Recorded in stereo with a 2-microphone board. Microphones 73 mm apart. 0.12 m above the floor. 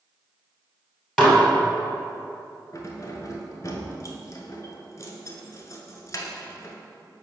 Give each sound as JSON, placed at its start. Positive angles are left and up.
{"t": 1.2, "sound": "dishes clattering", "side_deg": 0, "distance_m": 1.8}
{"t": 2.7, "sound": "keys jangling", "side_deg": 40, "distance_m": 0.9}